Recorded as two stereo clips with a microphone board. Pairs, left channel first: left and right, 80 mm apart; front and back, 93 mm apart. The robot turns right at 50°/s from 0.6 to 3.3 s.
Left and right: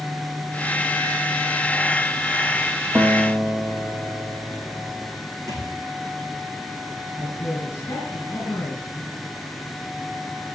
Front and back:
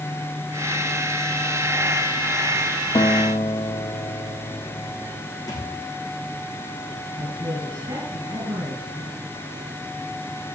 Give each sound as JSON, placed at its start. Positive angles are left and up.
{"t": 3.0, "sound": "a guitar", "azimuth_deg": -30, "distance_m": 1.4}
{"t": 5.5, "sound": "a thud", "azimuth_deg": -45, "distance_m": 3.0}
{"t": 7.2, "sound": "a man speaking", "azimuth_deg": 140, "distance_m": 3.0}